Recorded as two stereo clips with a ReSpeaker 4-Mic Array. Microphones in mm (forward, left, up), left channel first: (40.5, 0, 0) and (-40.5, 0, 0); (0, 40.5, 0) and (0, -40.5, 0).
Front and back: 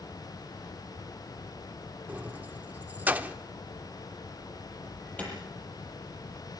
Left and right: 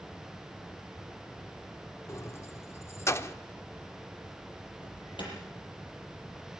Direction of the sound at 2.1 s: 120° left.